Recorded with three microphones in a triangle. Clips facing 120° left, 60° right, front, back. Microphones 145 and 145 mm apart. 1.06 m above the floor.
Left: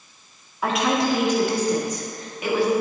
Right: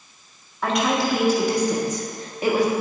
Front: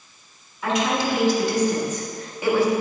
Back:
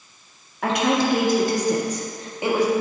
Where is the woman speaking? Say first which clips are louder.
Even, back 2 dB; 155° right, 1.7 m; by 2.7 s 105° right, 1.6 m.